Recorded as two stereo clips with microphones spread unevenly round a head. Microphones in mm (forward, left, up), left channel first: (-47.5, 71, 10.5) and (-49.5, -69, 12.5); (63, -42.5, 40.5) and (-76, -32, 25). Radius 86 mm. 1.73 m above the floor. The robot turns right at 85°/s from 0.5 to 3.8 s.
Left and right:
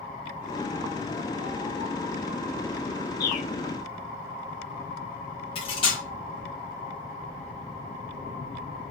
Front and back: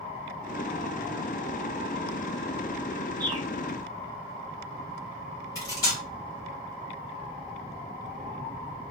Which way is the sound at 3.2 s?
105° left.